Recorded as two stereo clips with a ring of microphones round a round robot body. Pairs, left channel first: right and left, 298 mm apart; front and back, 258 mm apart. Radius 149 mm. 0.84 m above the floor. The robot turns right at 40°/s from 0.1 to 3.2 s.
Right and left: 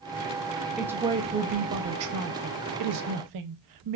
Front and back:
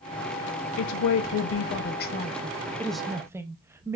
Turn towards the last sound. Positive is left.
turn(degrees=100)